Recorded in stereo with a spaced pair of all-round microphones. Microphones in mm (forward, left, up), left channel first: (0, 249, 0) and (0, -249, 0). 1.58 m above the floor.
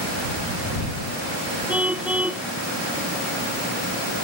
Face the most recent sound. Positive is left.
turn(degrees=-5)  # may be behind; listen again after turning